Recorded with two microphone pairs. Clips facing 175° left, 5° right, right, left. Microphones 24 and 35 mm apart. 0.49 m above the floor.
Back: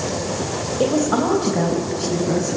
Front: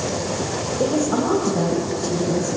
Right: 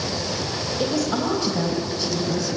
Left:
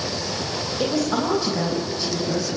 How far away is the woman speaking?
About 2.5 m.